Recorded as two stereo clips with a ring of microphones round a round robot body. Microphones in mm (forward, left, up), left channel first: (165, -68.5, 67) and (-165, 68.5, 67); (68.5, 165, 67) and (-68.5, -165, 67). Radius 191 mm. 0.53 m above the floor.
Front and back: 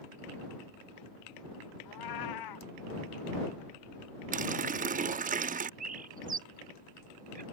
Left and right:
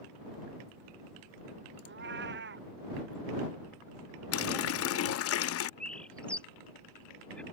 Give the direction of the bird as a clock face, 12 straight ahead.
7 o'clock.